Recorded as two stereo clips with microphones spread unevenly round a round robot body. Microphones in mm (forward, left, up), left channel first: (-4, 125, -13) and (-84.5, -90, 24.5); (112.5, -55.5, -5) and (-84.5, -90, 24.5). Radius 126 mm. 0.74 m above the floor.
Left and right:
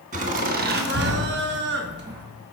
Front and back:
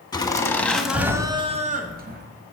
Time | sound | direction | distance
0.1 | laughter | 50° right | 1.6 m